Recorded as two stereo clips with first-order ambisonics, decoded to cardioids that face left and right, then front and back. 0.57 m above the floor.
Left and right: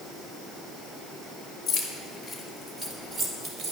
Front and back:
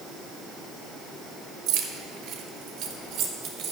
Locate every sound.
1.7 s keys jangling: 160° left, 1.4 m; by 3.7 s 135° right, 1.7 m